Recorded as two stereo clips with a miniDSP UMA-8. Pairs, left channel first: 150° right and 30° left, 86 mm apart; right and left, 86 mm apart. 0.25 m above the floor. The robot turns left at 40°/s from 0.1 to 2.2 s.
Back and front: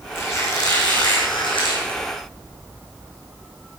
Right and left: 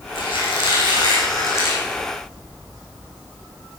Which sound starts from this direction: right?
A squeak, at 0.1 s.